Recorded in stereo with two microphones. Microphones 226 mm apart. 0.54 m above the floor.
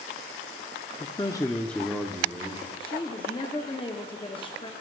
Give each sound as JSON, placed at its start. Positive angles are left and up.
{"t": 1.0, "sound": "a man speaking", "side_deg": 25, "distance_m": 0.6}
{"t": 2.8, "sound": "a woman speaking", "side_deg": 20, "distance_m": 0.7}